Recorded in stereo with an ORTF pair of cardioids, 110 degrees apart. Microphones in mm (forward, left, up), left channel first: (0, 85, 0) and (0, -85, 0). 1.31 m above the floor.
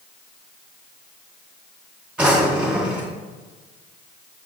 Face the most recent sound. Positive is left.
turn(degrees=-5)